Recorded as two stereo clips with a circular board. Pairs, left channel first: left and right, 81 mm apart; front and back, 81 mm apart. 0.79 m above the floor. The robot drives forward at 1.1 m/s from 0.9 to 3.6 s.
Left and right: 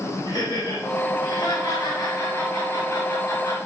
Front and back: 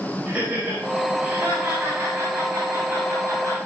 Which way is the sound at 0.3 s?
110° left.